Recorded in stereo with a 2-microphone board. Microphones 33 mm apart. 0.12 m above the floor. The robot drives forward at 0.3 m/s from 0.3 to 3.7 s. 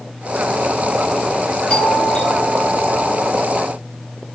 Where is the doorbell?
25° left (ahead or behind), 4 m; by 3.2 s 30° left (ahead or behind), 3.5 m.